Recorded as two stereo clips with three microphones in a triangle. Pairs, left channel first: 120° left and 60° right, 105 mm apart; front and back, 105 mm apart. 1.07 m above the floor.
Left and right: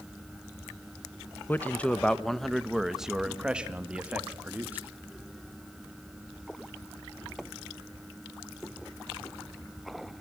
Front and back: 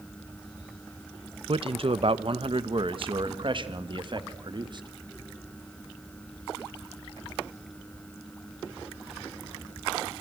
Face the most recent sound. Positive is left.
turn(degrees=-135)